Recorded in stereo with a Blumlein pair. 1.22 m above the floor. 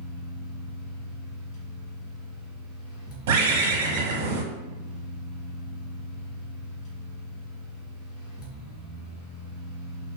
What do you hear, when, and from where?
0.0 s a fan: 25° left, 1.6 m
3.3 s a bird: 55° right, 1.1 m